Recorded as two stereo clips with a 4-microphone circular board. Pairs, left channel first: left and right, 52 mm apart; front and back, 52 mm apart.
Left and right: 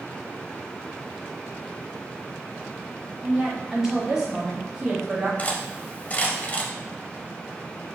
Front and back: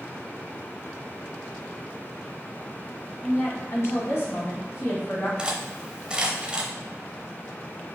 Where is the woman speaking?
10° right, 1.9 m.